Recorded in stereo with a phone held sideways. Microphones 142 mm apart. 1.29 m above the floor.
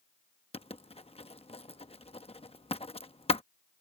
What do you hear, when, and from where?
0.5 s writing: 45° left (ahead or behind)